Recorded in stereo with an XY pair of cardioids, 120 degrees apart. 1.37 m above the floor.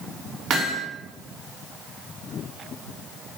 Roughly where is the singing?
I don't hear singing.